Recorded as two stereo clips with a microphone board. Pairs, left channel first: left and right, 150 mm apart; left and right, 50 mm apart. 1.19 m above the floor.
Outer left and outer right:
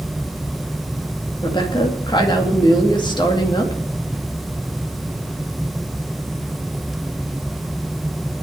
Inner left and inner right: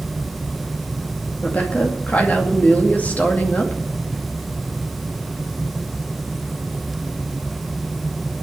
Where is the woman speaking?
30° left (ahead or behind), 2 m.